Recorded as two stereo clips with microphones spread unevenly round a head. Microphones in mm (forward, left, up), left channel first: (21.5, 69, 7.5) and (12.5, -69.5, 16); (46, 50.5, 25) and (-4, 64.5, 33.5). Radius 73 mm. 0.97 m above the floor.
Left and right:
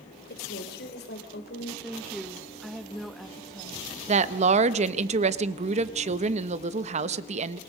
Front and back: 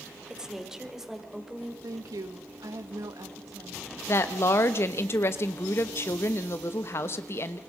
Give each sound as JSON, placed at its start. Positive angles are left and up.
{"t": 0.3, "sound": "a woman speaking", "azimuth_deg": 85, "distance_m": 3.5}
{"t": 1.8, "sound": "a woman speaking", "azimuth_deg": 175, "distance_m": 1.3}
{"t": 4.1, "sound": "a woman speaking", "azimuth_deg": -55, "distance_m": 1.0}